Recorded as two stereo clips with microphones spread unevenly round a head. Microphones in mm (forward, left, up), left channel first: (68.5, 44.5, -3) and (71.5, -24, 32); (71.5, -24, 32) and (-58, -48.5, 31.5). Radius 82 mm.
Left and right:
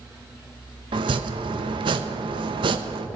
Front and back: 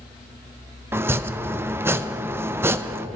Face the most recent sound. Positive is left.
turn(degrees=-105)